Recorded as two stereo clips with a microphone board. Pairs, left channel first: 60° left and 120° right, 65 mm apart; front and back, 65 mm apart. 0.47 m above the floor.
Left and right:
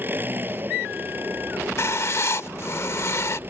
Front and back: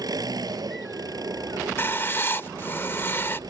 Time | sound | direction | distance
0.0 | an engine running | straight behind | ?
1.8 | writing | 40° left | ?